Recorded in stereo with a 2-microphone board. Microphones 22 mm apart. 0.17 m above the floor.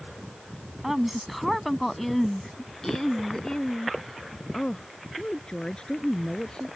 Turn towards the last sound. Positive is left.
turn(degrees=50)  # may be behind; listen again after turning